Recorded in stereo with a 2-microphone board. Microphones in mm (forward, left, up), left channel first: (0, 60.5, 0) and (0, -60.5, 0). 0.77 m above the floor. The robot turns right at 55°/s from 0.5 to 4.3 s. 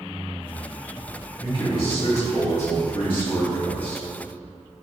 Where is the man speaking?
35° left, 1.4 m; by 4.0 s straight behind, 1.4 m.